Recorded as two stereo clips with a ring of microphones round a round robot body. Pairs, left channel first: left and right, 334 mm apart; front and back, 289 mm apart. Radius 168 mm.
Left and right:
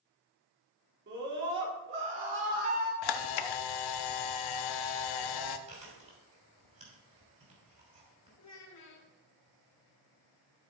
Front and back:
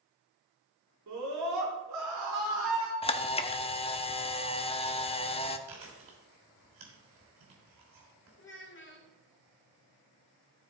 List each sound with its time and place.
1.1 s a scream: 145° right, 3 m
3.0 s a camera shutter: 70° left, 0.7 m
5.7 s chewing: 160° right, 3 m
8.4 s a child speaking: 50° left, 1.9 m